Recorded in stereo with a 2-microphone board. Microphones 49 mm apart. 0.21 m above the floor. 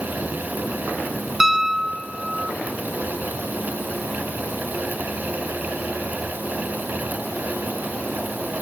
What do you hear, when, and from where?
1.4 s a piano: 10° right (ahead or behind), 1.0 m